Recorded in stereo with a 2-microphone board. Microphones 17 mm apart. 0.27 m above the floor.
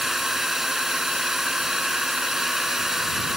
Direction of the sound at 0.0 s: 30° right (ahead or behind).